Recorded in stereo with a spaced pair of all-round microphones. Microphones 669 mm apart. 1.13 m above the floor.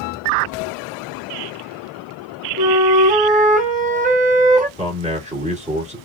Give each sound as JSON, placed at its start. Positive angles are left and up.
{"t": 2.6, "sound": "a flute", "side_deg": -10, "distance_m": 1.1}
{"t": 4.8, "sound": "a man speaking", "side_deg": -10, "distance_m": 2.0}